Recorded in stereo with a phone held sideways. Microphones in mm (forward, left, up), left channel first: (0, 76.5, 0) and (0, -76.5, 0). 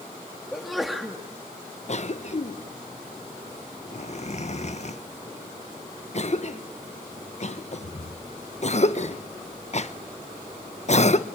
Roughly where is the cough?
Left.